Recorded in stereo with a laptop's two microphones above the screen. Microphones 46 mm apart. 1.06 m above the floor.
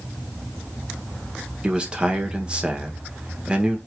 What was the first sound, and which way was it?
A man speaking, 20° right (ahead or behind).